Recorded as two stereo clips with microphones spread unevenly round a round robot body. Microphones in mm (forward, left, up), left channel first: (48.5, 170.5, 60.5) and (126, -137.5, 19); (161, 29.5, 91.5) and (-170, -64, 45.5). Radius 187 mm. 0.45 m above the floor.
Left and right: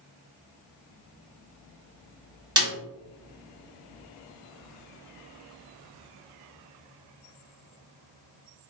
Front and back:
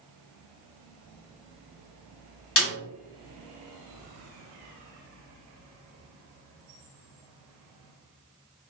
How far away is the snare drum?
About 1.7 m.